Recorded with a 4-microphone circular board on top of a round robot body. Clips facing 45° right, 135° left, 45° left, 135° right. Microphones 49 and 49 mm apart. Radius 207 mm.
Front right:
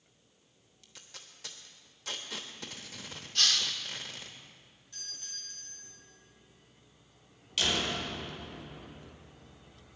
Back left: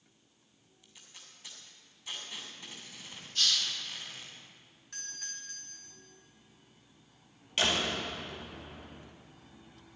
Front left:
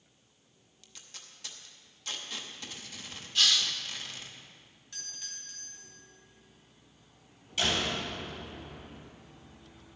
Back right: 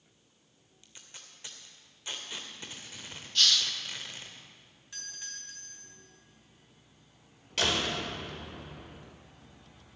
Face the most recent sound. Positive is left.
turn(degrees=-160)